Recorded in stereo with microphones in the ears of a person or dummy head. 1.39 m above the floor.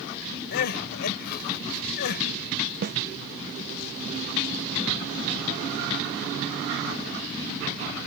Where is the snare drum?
50° right (ahead or behind).